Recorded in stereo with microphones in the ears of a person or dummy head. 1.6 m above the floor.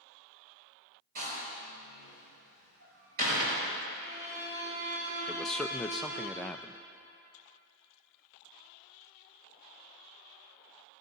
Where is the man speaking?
Centre (ahead or behind), 0.5 m.